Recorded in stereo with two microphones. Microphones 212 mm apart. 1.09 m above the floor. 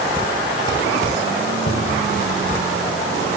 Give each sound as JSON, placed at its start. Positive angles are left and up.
{"t": 1.7, "sound": "a cupboard door", "side_deg": 50, "distance_m": 1.3}